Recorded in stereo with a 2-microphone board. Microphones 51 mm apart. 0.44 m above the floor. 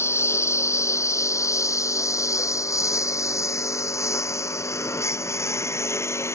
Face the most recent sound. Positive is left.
turn(degrees=60)  # may be behind; listen again after turning